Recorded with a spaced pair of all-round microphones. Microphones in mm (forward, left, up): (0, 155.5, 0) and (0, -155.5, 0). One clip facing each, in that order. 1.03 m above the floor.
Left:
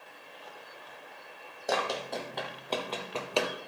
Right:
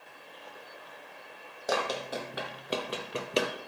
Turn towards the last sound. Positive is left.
turn(degrees=-25)  # may be behind; listen again after turning